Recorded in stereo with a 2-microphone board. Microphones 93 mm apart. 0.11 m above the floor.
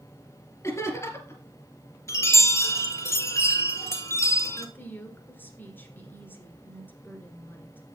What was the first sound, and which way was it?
Laughter, 30° left (ahead or behind).